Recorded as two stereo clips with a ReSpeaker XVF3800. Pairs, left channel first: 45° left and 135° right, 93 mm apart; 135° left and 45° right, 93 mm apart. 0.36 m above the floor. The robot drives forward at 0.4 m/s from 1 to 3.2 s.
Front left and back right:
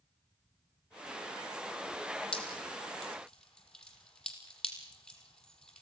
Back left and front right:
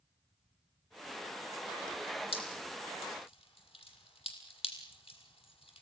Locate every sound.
2.3 s dripping: 125° left, 5.5 m; by 5.8 s 130° left, 6 m